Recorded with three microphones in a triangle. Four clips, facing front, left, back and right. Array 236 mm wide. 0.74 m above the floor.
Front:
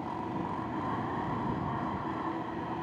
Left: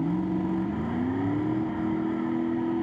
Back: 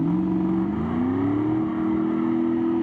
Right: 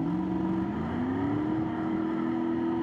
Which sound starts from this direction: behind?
A vehicle, at 0.0 s.